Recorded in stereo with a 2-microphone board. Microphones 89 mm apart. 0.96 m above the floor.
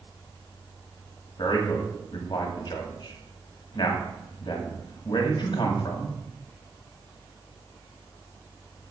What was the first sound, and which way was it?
A man speaking, 60° left (ahead or behind).